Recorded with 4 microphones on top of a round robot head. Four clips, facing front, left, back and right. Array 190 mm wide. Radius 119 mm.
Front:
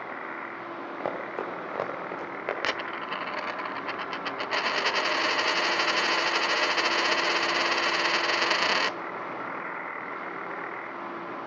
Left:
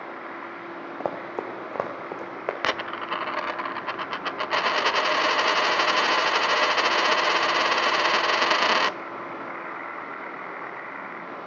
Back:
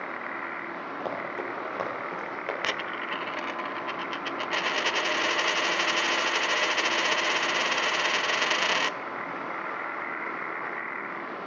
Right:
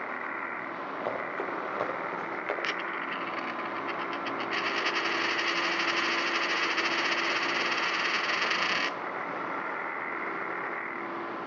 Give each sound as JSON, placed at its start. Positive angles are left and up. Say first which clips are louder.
{"t": 1.0, "sound": "running footsteps", "louder": "left 4 dB, front 1 dB", "azimuth_deg": 75, "distance_m": 6.5}
{"t": 2.6, "sound": "a dropped coin", "louder": "left 5 dB, even", "azimuth_deg": 85, "distance_m": 0.6}